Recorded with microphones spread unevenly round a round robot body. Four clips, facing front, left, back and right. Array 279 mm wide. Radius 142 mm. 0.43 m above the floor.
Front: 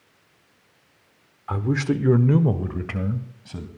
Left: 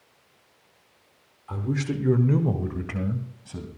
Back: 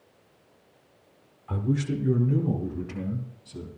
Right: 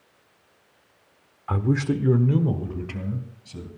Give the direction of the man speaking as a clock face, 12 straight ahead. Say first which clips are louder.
Right 5 dB, front 4 dB; 2 o'clock.